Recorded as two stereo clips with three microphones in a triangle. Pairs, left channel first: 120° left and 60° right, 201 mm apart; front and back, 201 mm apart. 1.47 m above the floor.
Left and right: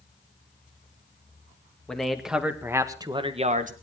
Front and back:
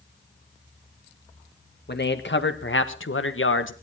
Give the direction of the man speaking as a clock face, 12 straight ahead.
11 o'clock.